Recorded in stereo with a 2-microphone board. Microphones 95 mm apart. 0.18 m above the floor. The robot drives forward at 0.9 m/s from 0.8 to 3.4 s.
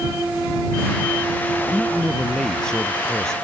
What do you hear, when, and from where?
1.6 s a man speaking: 10° left (ahead or behind); by 3.3 s 5° left (ahead or behind)